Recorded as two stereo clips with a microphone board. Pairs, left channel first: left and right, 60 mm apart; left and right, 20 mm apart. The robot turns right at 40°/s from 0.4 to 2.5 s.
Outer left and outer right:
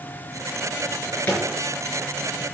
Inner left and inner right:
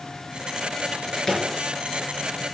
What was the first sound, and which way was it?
A drawer, 50° left (ahead or behind).